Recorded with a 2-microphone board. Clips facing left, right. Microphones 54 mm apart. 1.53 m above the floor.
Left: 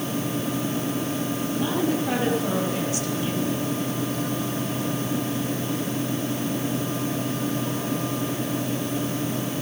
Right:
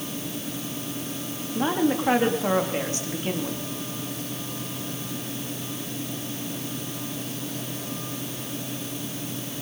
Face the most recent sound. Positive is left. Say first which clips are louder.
# right 3 dB
turn(degrees=-40)  # may be behind; listen again after turning